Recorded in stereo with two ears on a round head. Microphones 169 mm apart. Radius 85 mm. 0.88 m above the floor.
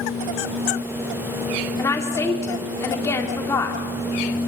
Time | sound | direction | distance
1.8 | a woman speaking | 15° left (ahead or behind) | 2.5 m